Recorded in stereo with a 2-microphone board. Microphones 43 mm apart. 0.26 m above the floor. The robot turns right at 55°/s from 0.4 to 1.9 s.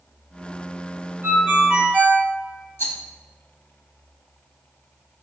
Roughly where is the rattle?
Left.